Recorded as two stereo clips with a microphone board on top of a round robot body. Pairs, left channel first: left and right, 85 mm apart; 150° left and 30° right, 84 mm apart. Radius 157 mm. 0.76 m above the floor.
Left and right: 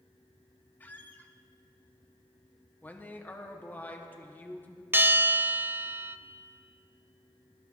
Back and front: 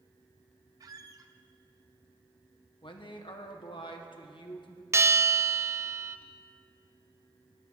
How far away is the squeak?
About 0.7 m.